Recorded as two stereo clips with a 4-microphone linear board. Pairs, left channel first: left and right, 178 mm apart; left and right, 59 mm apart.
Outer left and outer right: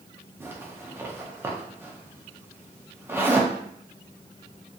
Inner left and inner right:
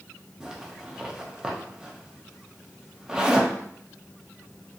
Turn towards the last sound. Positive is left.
turn(degrees=-15)  # may be behind; listen again after turning